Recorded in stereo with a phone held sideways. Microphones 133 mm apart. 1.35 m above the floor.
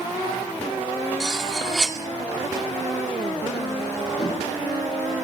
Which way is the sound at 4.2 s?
30° left (ahead or behind).